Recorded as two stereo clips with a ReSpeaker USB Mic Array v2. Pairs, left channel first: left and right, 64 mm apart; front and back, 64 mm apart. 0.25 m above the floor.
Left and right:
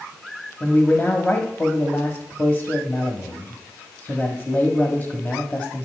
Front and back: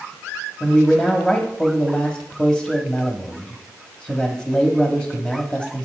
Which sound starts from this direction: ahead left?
A man speaking, at 0.6 s.